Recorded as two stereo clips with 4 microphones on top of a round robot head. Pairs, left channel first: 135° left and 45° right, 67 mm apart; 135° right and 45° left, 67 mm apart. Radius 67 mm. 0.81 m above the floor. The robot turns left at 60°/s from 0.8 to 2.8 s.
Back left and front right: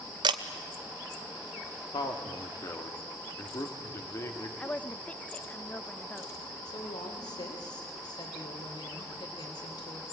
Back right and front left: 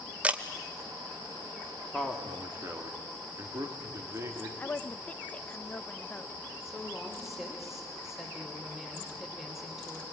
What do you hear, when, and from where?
0.2 s a camera shutter: 30° right, 0.8 m
1.9 s a man speaking: 145° left, 1.9 m; by 4.5 s 90° left, 1.9 m
4.6 s a woman speaking: 175° right, 0.7 m
6.7 s a woman speaking: 130° left, 3 m